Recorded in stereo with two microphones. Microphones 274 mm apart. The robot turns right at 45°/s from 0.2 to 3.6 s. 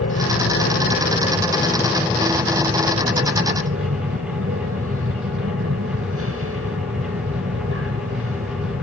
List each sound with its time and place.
0.0 s an aircraft: 95° left; by 8.8 s 110° right